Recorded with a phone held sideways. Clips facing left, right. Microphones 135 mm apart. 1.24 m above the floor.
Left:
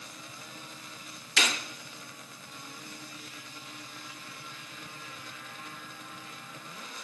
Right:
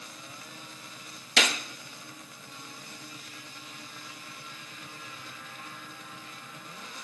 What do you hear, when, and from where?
1.4 s a gunshot: 90° right, 1.2 m